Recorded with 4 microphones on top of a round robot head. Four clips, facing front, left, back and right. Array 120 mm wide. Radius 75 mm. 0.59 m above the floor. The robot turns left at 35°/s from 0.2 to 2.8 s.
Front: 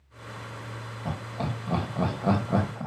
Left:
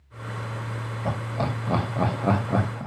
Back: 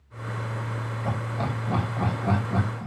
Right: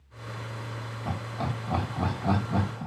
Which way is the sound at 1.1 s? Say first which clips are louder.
Left 5 dB, back 2 dB; 100° left.